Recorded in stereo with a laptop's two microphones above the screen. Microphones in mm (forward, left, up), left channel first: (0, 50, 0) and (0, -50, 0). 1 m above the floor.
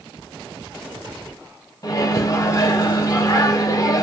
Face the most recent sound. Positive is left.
turn(degrees=35)  # may be behind; listen again after turning